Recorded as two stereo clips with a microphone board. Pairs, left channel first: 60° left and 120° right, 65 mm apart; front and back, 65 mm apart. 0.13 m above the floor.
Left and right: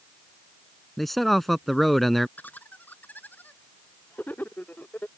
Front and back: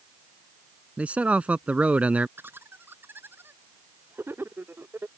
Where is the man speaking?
145° left.